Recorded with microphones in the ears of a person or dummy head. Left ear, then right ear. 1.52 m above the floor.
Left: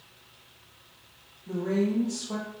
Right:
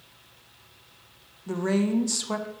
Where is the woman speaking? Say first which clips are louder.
Right 2 dB; 60° right (ahead or behind), 0.8 m.